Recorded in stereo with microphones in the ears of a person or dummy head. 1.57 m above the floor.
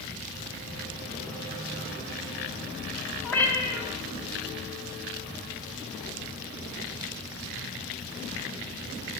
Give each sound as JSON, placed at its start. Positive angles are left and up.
{"t": 3.2, "sound": "a cat meowing", "side_deg": 10, "distance_m": 1.2}